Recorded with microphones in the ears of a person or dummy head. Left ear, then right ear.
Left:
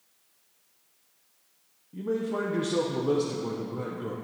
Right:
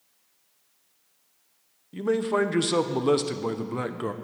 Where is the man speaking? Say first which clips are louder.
Right 6 dB; 50° right (ahead or behind), 0.6 m.